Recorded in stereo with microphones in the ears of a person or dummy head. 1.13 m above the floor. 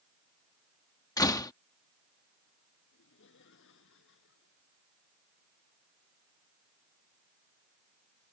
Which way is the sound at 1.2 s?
15° left (ahead or behind).